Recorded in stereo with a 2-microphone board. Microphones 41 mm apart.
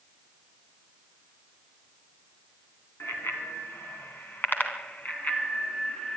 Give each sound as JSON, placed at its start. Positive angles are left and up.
{"t": 3.0, "sound": "a bicycle bell", "side_deg": 75, "distance_m": 3.0}